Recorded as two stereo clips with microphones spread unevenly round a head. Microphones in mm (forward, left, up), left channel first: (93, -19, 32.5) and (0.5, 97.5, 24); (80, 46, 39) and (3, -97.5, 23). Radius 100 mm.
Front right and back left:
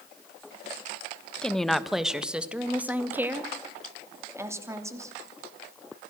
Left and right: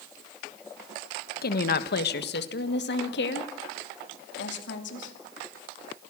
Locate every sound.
1.4 s a woman speaking: 35° left, 1.3 m; by 5.2 s 60° left, 3 m